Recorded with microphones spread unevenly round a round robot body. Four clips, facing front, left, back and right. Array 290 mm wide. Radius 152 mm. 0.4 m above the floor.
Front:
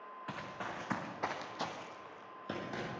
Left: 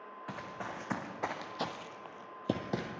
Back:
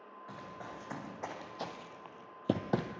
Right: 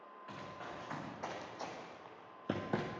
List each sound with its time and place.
0.3 s running footsteps: 50° left, 2.5 m; by 2.9 s straight behind, 1.1 m